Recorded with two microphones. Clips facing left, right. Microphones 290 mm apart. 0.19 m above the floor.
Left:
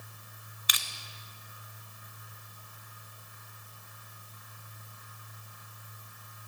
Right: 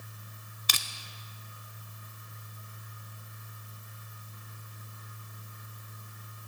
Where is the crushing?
50° right (ahead or behind), 0.5 m.